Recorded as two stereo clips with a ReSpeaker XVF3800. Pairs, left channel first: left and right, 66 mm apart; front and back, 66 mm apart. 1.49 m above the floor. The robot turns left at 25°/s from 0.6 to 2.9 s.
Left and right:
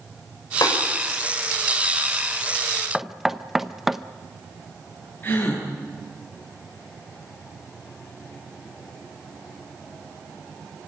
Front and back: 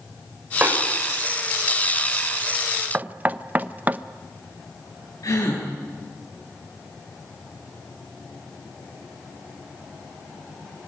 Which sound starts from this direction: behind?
Knocking, at 2.9 s.